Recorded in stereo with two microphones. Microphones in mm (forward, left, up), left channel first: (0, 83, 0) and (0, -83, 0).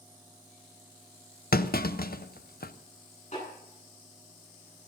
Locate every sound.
1.5 s a clunk: 65° left (ahead or behind), 0.6 m
3.3 s a snare drum: 45° left (ahead or behind), 9.5 m